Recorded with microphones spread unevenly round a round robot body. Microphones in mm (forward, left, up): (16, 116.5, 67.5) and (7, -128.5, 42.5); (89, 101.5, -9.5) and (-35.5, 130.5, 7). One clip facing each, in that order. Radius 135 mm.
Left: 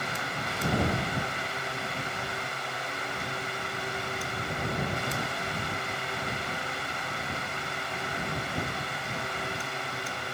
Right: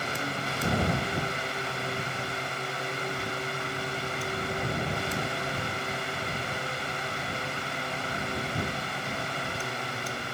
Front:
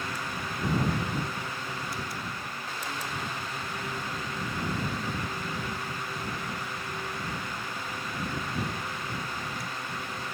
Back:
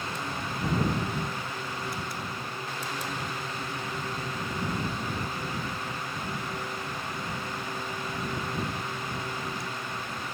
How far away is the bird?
I don't hear a bird.